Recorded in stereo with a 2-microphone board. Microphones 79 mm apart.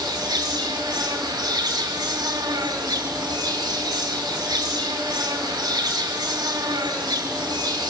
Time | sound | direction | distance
0.0 | an insect | 50° right (ahead or behind) | 5 m